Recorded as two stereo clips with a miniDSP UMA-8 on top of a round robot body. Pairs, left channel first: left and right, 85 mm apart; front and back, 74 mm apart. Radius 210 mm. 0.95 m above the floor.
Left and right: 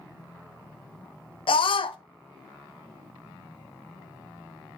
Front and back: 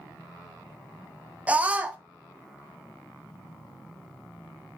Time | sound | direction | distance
1.5 | a scream | 110° left | 0.5 m